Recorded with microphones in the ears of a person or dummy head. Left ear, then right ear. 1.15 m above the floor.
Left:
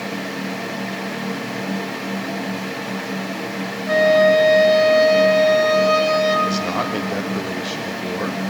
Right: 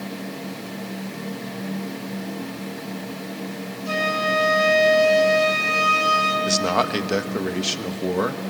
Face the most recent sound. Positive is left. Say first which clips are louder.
# right 1 dB
turn(degrees=-80)